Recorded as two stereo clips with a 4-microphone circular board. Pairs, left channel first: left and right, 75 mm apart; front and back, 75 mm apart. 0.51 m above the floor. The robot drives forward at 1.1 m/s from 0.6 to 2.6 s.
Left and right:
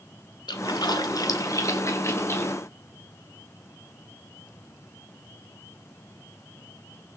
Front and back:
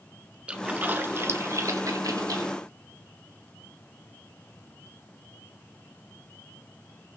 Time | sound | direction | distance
0.5 | a splash | 105° left | 1.7 m